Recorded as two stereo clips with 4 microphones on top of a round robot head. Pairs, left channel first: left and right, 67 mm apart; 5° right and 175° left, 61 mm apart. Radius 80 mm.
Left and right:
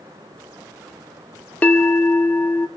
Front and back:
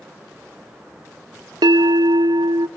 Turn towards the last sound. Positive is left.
turn(degrees=160)